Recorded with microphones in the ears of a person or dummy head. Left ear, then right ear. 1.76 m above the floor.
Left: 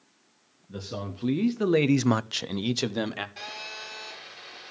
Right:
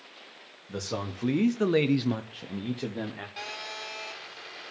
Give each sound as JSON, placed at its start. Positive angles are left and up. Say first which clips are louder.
{"t": 0.7, "sound": "a man speaking", "louder": "right 3 dB", "side_deg": -40, "distance_m": 1.6}
{"t": 3.4, "sound": "a phone buzzing", "louder": "even", "side_deg": -10, "distance_m": 6.0}